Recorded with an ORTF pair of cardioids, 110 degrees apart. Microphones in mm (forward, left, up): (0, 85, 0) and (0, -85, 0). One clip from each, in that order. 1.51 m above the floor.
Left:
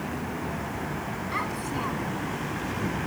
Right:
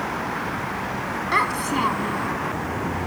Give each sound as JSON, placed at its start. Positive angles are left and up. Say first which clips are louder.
{"t": 1.3, "sound": "a child speaking", "louder": "right 10 dB", "azimuth_deg": -60}